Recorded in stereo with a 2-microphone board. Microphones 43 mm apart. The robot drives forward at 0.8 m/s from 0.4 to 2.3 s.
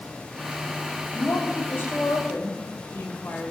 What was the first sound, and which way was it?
A woman speaking, 55° left (ahead or behind).